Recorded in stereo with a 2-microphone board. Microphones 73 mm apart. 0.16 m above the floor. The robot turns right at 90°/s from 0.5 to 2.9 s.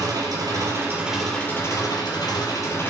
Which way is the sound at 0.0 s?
65° right.